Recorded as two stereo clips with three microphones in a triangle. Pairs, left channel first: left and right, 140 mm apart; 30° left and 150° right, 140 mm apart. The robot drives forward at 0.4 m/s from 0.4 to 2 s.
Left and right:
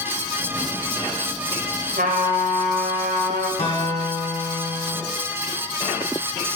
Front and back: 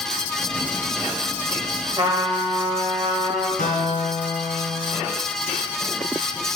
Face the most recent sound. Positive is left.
turn(degrees=45)